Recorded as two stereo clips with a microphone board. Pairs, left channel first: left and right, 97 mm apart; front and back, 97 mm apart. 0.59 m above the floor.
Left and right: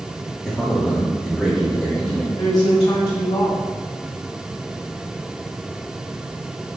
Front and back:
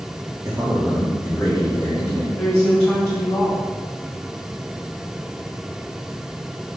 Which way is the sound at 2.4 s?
75° left.